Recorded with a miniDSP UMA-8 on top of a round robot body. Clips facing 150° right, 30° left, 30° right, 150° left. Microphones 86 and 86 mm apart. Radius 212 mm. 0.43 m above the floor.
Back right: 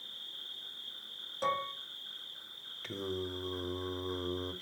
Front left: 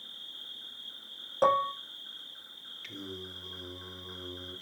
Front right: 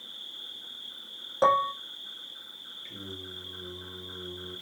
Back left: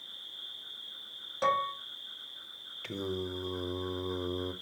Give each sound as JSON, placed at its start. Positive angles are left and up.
{"t": 0.0, "sound": "an insect", "azimuth_deg": -25, "distance_m": 3.5}
{"t": 1.4, "sound": "dishes clattering", "azimuth_deg": 15, "distance_m": 0.9}
{"t": 2.8, "sound": "singing", "azimuth_deg": 155, "distance_m": 0.7}